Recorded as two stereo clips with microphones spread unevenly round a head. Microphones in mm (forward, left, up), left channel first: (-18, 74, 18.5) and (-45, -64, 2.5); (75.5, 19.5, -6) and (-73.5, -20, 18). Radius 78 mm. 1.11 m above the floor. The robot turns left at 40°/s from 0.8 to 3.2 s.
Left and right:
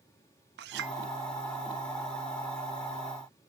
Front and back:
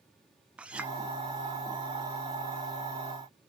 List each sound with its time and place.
0.6 s a clink: 85° right, 0.7 m; by 0.9 s 90° right, 0.7 m